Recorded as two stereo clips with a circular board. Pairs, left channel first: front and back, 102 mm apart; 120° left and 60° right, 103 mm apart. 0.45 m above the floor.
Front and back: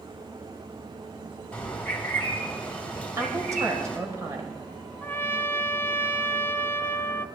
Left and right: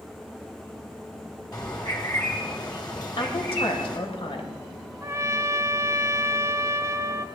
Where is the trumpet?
45° right, 0.5 m.